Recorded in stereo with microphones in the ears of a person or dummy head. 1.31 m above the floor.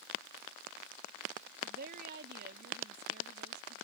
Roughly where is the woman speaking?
Right.